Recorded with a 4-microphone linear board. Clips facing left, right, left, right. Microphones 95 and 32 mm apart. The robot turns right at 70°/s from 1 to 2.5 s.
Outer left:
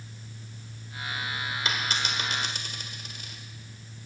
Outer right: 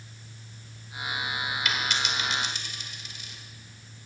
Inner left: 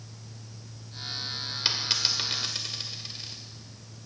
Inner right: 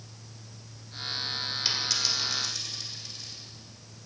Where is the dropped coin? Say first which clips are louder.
Even, inner left 2 dB; 30° left (ahead or behind), 1.6 m; by 3.4 s 50° left (ahead or behind), 1.6 m.